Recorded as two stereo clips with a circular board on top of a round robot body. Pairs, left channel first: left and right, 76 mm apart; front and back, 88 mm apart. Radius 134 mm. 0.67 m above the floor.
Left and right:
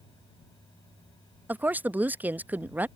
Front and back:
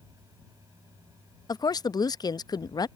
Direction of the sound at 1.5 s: 25° right.